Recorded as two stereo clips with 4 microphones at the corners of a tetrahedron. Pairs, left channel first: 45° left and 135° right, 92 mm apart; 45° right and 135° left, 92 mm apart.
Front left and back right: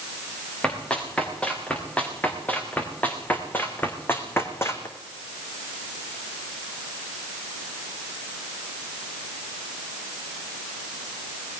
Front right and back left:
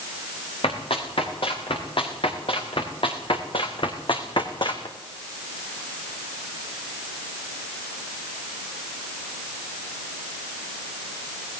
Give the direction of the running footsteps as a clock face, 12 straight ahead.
1 o'clock.